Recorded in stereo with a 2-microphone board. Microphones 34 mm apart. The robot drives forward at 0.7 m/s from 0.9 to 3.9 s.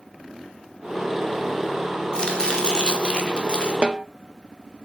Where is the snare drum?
35° right (ahead or behind), 0.5 m.